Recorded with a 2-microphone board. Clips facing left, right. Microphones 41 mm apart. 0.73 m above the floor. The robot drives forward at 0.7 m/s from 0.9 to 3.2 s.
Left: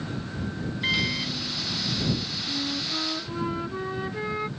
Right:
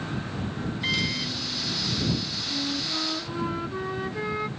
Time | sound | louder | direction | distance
0.8 | a microwave | left 2 dB | 10° left (ahead or behind) | ?
2.5 | a flute | even | centre (ahead or behind) | ?